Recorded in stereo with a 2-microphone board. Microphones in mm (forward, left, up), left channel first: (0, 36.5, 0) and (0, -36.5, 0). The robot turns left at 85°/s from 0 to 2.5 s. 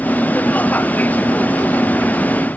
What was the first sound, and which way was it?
Only background noise.